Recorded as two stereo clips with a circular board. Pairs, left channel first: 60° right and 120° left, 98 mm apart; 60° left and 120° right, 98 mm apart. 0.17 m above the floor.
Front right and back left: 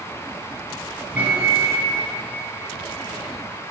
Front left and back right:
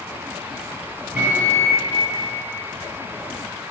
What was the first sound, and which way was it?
A microwave, 175° left.